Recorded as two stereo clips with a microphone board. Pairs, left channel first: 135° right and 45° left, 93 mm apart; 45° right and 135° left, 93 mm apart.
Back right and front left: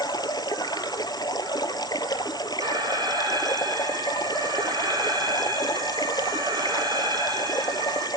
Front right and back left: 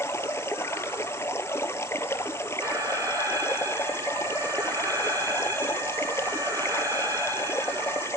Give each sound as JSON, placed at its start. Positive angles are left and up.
{"t": 0.0, "sound": "running water", "azimuth_deg": -100, "distance_m": 1.7}
{"t": 2.6, "sound": "an alarm", "azimuth_deg": 85, "distance_m": 4.0}